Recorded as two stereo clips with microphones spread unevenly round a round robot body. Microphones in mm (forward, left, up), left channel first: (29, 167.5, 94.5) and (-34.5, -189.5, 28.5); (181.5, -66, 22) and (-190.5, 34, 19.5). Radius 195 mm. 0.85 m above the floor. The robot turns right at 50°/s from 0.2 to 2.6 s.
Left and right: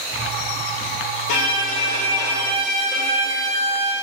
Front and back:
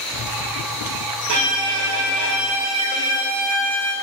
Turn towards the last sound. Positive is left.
turn(degrees=180)